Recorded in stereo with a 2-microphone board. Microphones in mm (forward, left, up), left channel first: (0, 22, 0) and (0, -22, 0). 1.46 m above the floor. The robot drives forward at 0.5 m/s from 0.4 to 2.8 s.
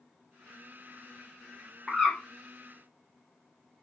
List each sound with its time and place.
1.9 s a bird: centre (ahead or behind), 1.5 m